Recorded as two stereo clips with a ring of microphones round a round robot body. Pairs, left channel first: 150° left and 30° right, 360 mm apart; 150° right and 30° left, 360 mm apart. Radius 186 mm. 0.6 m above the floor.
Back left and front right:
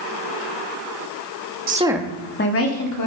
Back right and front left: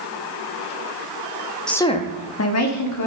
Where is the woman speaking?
65° right, 1.1 m; by 3.1 s straight behind, 2.0 m.